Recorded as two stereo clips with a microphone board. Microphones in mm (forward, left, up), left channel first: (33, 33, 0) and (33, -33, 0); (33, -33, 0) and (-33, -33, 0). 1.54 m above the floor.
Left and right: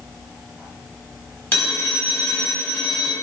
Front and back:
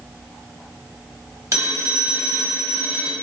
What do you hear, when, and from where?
1.5 s a phone ringing: 155° left, 1.2 m